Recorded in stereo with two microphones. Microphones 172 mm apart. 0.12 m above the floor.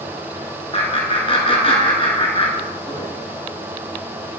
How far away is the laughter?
About 1.6 m.